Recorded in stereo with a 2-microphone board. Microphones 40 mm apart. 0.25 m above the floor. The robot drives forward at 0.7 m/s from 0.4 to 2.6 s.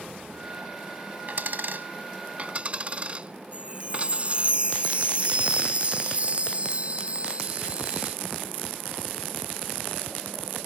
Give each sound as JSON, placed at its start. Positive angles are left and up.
{"t": 1.3, "sound": "a dropped coin", "side_deg": -50}
{"t": 3.5, "sound": "a chime", "side_deg": -35}